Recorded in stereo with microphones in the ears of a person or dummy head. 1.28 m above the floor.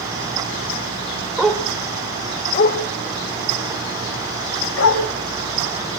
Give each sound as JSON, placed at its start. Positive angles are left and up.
{"t": 1.4, "sound": "a dog barking", "side_deg": -5, "distance_m": 2.0}